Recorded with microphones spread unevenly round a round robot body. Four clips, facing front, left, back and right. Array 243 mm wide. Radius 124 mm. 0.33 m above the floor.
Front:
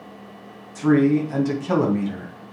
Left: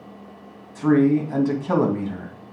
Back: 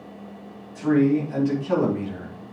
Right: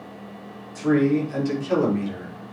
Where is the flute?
No flute in this recording.